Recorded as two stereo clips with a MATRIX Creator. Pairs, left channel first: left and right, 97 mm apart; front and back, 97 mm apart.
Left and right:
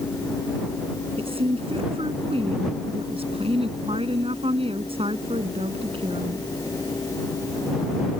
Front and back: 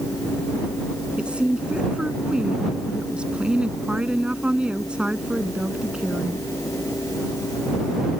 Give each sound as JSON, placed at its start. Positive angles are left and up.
{"t": 1.2, "sound": "a woman speaking", "azimuth_deg": -100}